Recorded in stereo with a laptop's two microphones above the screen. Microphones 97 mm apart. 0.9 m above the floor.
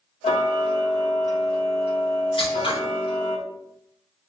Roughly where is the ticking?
Left.